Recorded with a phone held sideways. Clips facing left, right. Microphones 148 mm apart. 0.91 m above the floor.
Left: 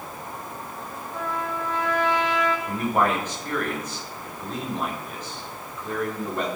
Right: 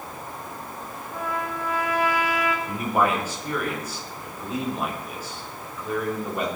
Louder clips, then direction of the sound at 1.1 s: Even; 10° right (ahead or behind).